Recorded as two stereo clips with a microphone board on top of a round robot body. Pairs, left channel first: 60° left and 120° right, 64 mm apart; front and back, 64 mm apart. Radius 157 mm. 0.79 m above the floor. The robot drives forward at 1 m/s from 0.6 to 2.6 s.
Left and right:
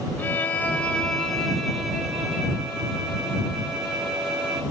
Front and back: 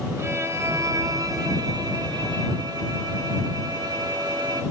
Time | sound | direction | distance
0.2 | a violin | 125° left | 1.2 m